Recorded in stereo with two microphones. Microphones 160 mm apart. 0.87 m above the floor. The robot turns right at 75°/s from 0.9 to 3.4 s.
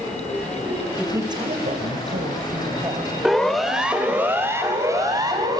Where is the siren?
5° right (ahead or behind), 2.5 m; by 5.6 s 25° right (ahead or behind), 5.5 m.